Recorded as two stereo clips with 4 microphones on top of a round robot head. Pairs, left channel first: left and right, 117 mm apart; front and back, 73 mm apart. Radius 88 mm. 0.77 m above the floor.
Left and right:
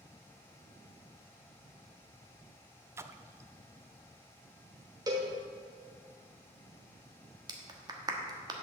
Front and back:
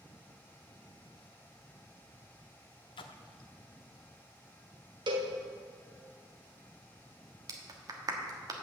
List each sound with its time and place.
3.0 s a splash: 20° right, 0.5 m
5.1 s a cowbell: 155° right, 1.2 m
7.5 s a clap: 145° right, 1.2 m